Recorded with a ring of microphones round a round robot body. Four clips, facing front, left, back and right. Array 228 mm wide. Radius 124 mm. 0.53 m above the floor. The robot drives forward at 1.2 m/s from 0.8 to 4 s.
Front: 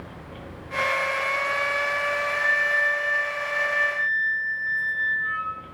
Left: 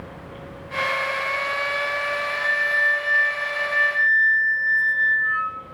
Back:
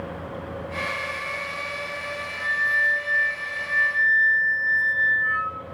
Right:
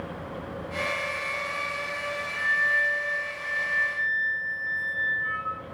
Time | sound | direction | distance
2.3 | a flute | 70° left | 1.1 m